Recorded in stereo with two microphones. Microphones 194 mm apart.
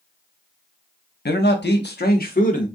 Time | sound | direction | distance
1.2 | a man speaking | 55° left (ahead or behind) | 0.8 m